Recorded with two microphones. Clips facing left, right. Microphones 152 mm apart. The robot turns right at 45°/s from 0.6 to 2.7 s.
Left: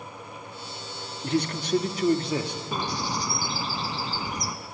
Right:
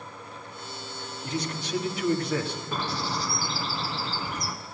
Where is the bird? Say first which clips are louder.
Left 1 dB; 15° left (ahead or behind), 1.4 m.